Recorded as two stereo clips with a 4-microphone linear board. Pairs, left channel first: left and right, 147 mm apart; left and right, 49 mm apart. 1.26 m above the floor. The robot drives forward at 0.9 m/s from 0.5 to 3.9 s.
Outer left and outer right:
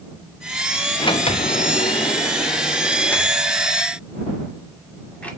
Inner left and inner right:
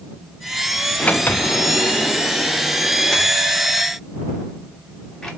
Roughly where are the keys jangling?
I don't hear keys jangling.